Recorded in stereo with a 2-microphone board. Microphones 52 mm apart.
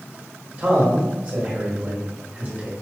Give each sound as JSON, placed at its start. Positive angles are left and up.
{"t": 0.6, "sound": "a man speaking", "side_deg": -30, "distance_m": 1.1}